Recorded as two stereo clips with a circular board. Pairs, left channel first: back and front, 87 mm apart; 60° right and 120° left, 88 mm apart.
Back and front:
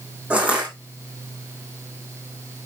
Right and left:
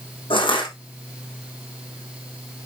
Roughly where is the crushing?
Right.